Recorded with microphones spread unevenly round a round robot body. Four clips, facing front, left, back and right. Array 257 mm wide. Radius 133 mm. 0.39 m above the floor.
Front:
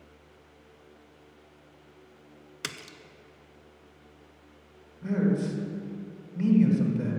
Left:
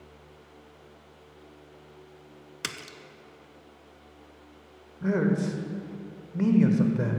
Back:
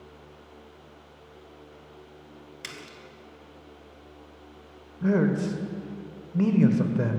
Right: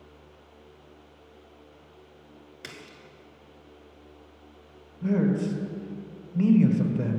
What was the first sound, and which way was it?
A splash, 70° left.